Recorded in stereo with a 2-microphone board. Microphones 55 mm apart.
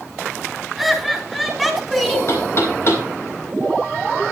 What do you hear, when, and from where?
0.8 s laughter: centre (ahead or behind), 4.5 m
2.3 s knocking: 50° left (ahead or behind), 5 m